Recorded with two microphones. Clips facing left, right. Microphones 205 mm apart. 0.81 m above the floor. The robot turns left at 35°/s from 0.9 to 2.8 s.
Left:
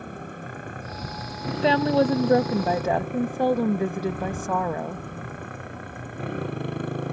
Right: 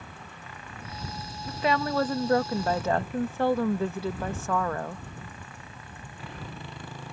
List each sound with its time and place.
0.0 s a motorcycle: 125° left; by 7.1 s 60° left
1.5 s a woman speaking: 75° left; by 5.0 s 30° left